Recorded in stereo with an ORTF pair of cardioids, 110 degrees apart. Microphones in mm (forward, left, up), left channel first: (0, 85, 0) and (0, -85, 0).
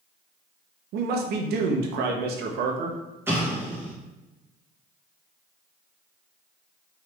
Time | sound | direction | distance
0.9 | a man speaking | 70° right | 0.8 m
3.3 | an explosion | 15° right | 1.7 m